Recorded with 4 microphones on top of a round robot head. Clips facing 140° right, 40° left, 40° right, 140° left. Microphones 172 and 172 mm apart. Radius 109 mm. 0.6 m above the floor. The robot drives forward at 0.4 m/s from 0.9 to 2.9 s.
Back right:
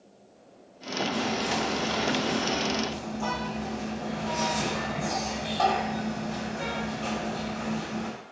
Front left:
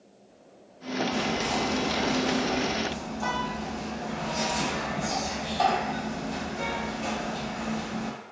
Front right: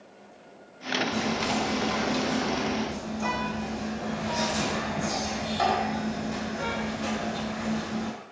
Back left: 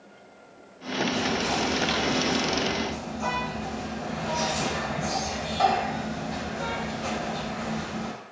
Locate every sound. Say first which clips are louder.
1.1 s whispering: back right 2 dB, even; 25° right, 1.8 m; by 8.1 s 50° right, 1.4 m